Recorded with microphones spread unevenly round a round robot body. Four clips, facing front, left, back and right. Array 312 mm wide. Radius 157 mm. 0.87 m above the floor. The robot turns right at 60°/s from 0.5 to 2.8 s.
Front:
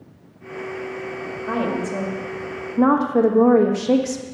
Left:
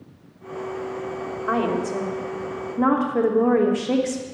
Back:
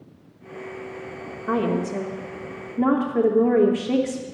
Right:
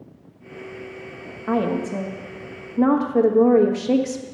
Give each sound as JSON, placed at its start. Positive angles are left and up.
{"t": 1.5, "sound": "a woman speaking", "azimuth_deg": -100, "distance_m": 1.4}